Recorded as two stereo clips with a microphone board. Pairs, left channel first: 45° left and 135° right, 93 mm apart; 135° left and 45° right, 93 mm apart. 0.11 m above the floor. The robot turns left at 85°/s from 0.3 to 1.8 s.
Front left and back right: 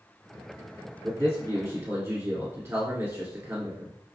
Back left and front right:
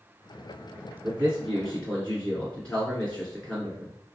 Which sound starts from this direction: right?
A man speaking, at 1.0 s.